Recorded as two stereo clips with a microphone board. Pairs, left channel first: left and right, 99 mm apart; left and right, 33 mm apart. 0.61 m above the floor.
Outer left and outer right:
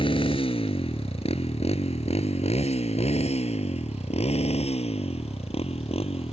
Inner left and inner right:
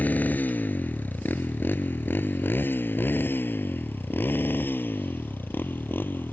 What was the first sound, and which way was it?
A motorcycle, 55° left (ahead or behind).